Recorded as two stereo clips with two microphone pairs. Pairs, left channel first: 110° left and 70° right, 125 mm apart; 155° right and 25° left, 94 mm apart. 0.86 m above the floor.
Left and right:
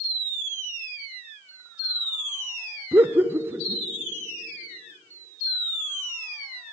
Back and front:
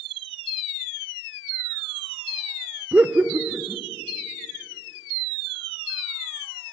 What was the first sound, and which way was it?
Laughter, 35° right.